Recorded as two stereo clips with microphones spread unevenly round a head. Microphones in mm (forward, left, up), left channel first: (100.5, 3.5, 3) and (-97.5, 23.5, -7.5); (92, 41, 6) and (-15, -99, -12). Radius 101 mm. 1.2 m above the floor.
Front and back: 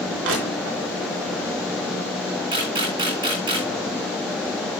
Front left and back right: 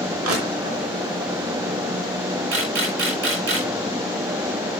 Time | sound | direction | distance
0.2 | crushing | 150° right | 4 m
2.5 | a camera shutter | 120° right | 6.5 m